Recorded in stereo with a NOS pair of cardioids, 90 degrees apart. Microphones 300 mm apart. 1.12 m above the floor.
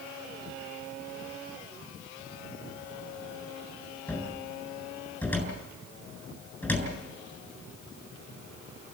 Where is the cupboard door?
5° left, 7.5 m.